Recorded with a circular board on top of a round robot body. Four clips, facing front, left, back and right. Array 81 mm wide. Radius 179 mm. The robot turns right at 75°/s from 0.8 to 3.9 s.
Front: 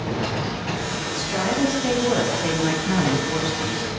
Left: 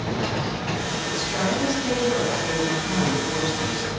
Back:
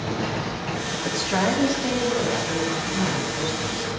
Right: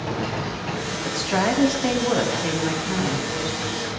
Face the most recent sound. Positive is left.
turn(degrees=70)